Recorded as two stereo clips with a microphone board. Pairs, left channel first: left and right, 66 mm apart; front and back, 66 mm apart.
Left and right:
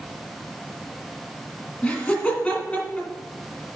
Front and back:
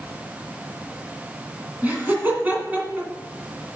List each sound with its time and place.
1.8 s laughter: 140° left, 1.8 m